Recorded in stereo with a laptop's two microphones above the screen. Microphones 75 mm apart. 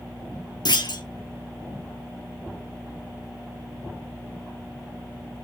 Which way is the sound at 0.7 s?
70° left (ahead or behind).